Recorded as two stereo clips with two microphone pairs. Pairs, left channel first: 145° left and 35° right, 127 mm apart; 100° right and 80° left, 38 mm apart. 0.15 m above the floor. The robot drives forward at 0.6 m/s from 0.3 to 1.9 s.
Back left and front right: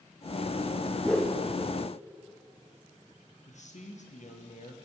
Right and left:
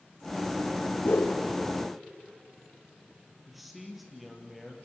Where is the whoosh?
130° right, 1.8 m; by 1.4 s 135° right, 2.0 m.